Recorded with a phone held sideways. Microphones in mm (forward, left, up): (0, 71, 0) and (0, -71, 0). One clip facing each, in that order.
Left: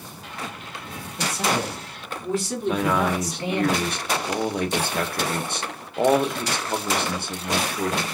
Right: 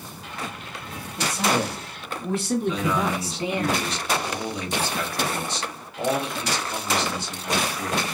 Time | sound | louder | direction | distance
1.2 | a man speaking | right 1 dB | 75° right (ahead or behind) | 2.0 m
2.7 | a man speaking | left 2 dB | 55° left (ahead or behind) | 0.6 m